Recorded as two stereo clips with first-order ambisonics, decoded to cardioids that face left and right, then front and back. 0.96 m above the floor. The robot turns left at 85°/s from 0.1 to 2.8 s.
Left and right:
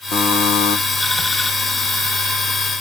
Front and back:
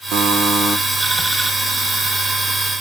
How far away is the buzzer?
About 1.2 m.